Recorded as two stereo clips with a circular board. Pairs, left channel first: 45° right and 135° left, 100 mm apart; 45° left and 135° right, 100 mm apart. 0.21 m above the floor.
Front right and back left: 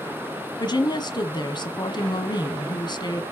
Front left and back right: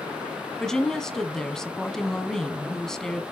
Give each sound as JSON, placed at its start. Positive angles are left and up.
{"t": 0.6, "sound": "a woman speaking", "azimuth_deg": -35, "distance_m": 1.5}